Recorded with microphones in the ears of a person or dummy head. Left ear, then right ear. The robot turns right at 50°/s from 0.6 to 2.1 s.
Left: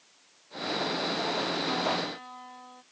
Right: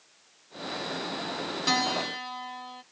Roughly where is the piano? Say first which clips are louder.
Right 3 dB; right.